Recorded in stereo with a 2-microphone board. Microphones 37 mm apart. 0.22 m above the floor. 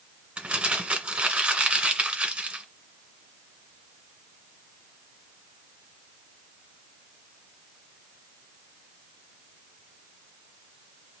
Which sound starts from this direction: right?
Crumpling, at 0.4 s.